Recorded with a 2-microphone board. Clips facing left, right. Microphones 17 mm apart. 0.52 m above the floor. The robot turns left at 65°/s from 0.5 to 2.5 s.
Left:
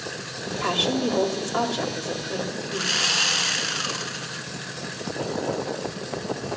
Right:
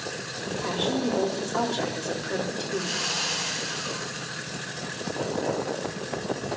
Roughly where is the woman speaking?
Left.